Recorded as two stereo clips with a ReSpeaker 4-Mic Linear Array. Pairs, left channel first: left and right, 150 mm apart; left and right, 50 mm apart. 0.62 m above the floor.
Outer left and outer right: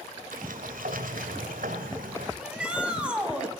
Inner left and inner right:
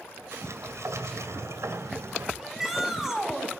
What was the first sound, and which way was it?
A sliding door, 75° right (ahead or behind).